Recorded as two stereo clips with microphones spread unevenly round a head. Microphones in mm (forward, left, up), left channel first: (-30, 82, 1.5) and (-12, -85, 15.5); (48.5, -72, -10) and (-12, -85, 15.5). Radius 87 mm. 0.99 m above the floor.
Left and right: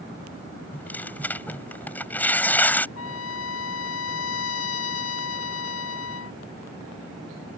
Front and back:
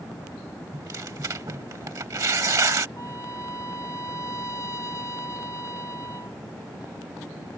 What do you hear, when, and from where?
0.7 s tearing paper: 175° left
3.0 s a trumpet: 90° left